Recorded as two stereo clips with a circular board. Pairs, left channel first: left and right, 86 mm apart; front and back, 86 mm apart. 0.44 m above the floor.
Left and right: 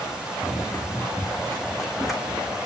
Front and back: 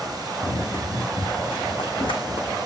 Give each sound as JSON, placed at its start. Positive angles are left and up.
{"t": 0.4, "sound": "running footsteps", "azimuth_deg": 25, "distance_m": 1.8}